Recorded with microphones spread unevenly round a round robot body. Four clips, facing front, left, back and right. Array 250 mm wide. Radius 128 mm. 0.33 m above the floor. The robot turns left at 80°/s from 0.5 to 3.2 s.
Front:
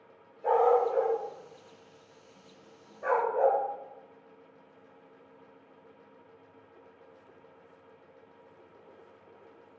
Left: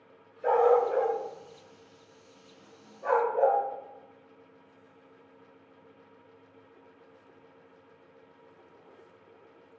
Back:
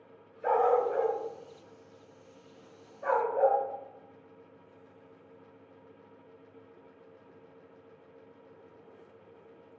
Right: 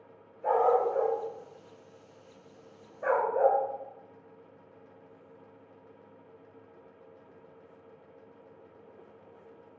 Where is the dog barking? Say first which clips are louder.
Left 2 dB, front 2 dB; 140° left, 1.4 m; by 3.6 s 75° right, 1.4 m.